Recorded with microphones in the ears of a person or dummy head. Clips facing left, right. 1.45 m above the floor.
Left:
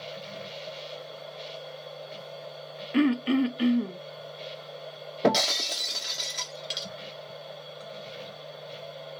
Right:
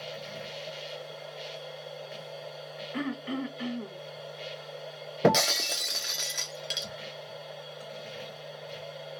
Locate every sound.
0.0 s a machine running: 10° right (ahead or behind), 2 m
2.9 s throat clearing: 50° left (ahead or behind), 0.6 m
5.2 s breaking glass: 5° right (ahead or behind), 1.0 m